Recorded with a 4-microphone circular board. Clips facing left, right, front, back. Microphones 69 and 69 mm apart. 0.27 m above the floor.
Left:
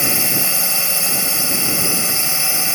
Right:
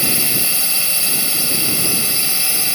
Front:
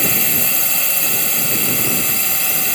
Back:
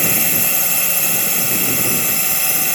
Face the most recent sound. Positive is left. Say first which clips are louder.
# left 1 dB, even
turn(degrees=100)